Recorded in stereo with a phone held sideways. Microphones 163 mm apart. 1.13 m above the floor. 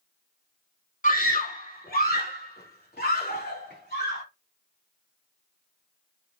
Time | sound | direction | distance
1.0 | a scream | 55° left (ahead or behind) | 2.5 m